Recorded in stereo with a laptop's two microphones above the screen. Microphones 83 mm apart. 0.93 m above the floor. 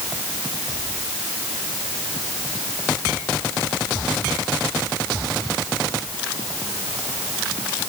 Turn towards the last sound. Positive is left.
No sound to turn to.